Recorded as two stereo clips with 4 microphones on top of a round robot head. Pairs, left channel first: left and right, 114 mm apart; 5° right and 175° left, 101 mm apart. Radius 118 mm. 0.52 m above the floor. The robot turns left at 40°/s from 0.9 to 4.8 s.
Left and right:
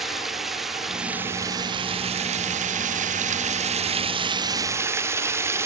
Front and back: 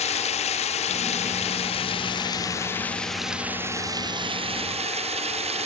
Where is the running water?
Straight ahead; by 5.7 s 160° right.